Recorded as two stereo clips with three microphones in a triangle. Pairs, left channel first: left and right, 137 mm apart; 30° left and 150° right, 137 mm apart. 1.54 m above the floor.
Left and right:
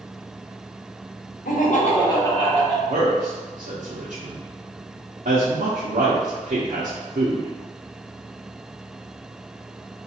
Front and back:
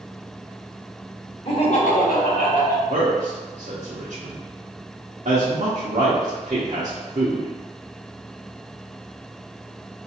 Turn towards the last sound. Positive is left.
turn(degrees=-110)